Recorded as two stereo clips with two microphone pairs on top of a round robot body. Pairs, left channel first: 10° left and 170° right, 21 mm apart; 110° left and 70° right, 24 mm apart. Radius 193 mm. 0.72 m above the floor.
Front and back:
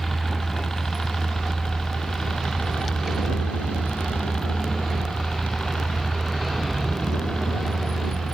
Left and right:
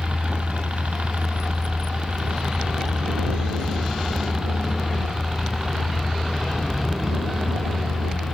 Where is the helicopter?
60° right; by 8.3 s 10° left.